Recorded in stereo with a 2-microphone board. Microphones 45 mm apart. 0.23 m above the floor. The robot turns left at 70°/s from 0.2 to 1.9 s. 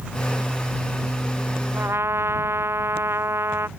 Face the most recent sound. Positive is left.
turn(degrees=-70)  # may be behind; listen again after turning